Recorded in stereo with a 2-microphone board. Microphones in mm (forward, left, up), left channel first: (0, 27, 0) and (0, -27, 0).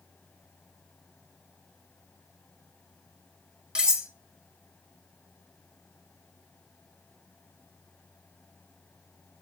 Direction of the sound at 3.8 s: 15° right (ahead or behind).